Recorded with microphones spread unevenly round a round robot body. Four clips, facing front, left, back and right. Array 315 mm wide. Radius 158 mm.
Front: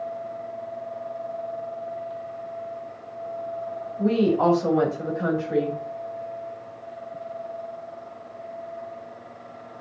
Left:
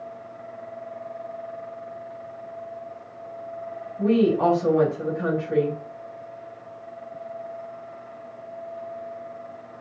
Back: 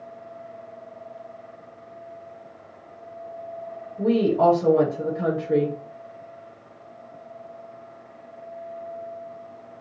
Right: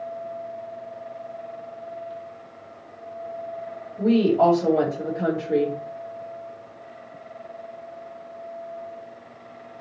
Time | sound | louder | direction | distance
4.0 | a woman speaking | right 1 dB, back 1 dB | 135° right | 3.5 m